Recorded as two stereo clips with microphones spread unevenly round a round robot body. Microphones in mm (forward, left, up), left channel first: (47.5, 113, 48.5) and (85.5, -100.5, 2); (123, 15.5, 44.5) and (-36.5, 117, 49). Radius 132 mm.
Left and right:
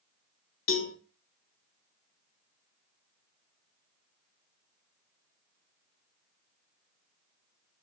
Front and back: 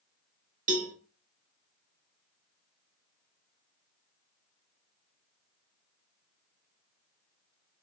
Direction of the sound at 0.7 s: 105° left.